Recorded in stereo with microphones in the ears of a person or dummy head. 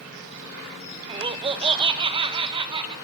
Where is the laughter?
25° right (ahead or behind), 0.9 m; by 2.9 s 20° right (ahead or behind), 2.5 m.